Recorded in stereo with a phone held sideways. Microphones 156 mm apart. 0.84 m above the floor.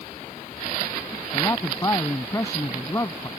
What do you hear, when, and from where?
1.3 s a man speaking: 20° left (ahead or behind)